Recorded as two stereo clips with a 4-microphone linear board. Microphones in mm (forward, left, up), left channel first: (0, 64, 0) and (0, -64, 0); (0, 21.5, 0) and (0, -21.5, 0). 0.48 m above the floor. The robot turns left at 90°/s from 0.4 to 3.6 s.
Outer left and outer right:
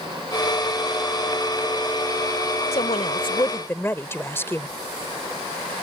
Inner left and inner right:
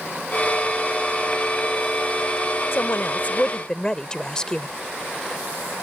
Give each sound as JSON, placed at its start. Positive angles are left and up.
{"t": 2.7, "sound": "a woman speaking", "azimuth_deg": 105}